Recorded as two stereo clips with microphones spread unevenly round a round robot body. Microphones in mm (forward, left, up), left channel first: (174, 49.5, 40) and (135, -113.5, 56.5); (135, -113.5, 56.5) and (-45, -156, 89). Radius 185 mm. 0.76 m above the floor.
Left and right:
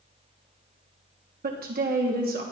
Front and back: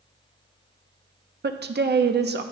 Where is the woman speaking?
135° right, 1.0 m.